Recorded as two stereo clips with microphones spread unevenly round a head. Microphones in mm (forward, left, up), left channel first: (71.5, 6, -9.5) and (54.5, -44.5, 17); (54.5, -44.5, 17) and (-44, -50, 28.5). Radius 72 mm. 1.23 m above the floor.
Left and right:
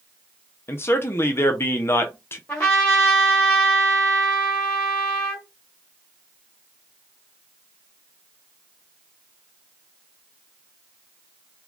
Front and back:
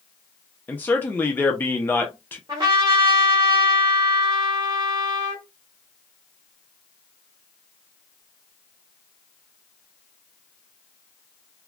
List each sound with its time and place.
0.7 s a man speaking: 75° left, 0.7 m
2.5 s a trumpet: 120° left, 1.1 m